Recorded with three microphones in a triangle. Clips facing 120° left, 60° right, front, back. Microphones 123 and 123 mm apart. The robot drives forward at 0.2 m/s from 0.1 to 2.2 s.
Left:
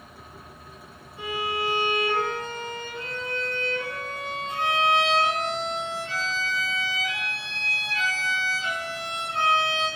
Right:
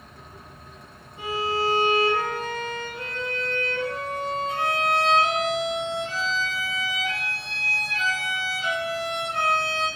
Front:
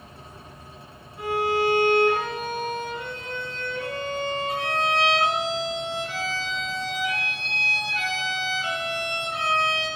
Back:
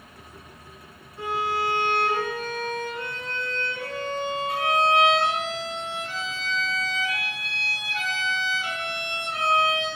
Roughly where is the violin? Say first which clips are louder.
Right 3 dB, front 4 dB; right.